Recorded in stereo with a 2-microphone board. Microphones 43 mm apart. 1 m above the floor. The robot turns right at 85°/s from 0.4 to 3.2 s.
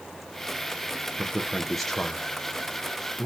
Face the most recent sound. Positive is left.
turn(degrees=15)  # may be behind; listen again after turning